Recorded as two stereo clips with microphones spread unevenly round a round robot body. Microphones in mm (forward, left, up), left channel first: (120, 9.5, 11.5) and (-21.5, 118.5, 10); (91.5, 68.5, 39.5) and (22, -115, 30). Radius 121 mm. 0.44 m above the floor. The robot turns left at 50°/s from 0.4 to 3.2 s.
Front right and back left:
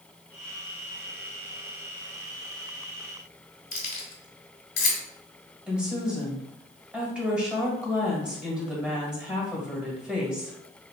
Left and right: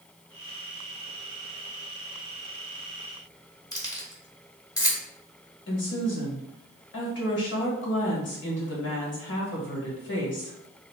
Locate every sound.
3.7 s keys jangling: 5° right, 1.4 m
5.7 s a woman speaking: 60° left, 1.8 m